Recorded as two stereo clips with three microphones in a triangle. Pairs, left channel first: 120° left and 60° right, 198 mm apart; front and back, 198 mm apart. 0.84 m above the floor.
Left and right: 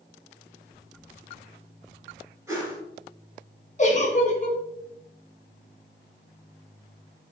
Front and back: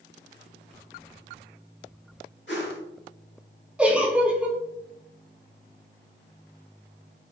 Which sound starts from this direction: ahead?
A whoosh, at 2.5 s.